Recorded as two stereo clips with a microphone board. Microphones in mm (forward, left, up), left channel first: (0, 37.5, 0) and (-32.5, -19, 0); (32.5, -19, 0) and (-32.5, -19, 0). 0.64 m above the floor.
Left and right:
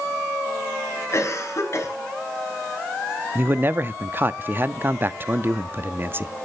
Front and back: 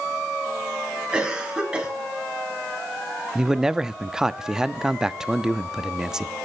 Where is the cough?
105° left, 5.5 m.